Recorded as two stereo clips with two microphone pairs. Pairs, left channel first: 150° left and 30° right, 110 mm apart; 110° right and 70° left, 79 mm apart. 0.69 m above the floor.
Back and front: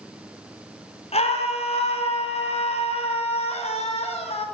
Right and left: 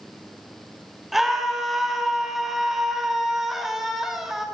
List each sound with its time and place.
1.1 s a scream: 155° left, 2 m